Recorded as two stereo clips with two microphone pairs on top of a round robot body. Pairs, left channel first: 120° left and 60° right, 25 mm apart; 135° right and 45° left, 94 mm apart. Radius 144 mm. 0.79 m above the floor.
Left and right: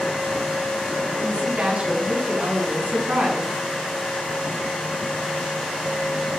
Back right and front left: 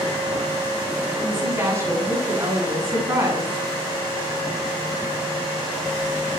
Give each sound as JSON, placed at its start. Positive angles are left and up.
{"t": 1.2, "sound": "a woman speaking", "azimuth_deg": -20, "distance_m": 8.5}